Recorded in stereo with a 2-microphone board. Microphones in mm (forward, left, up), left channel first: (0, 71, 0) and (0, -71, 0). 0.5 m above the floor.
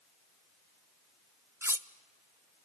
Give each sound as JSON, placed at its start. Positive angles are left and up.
{"t": 1.6, "sound": "cutlery clinking", "side_deg": -15, "distance_m": 0.6}